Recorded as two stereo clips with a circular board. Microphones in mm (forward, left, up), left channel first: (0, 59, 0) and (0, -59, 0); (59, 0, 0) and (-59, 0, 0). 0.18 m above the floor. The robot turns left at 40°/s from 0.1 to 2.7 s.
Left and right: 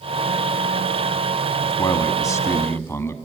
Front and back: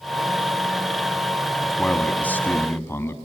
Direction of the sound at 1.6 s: 85° left.